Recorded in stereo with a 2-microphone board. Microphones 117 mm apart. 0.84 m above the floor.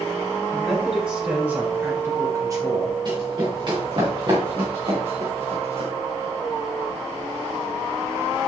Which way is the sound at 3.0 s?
40° right (ahead or behind).